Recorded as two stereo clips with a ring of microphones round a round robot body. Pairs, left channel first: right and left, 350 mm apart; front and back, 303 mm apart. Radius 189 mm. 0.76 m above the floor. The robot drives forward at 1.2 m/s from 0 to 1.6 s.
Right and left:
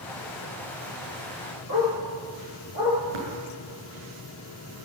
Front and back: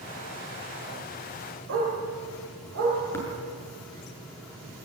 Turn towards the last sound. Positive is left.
turn(degrees=80)